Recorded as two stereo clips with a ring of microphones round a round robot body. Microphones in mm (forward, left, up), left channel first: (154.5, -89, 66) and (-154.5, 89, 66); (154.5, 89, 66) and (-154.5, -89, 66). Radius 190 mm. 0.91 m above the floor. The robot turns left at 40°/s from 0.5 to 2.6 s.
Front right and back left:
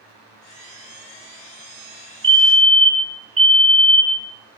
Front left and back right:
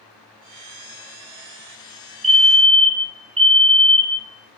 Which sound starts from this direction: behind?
A fire alarm, at 2.2 s.